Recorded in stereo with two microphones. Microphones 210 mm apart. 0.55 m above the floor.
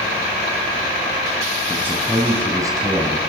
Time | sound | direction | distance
1.7 | a man speaking | 10° right (ahead or behind) | 4 m